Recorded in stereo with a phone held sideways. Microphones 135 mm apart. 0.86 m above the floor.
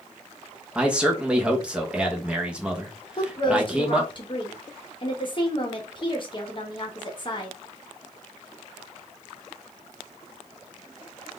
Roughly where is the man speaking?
Centre.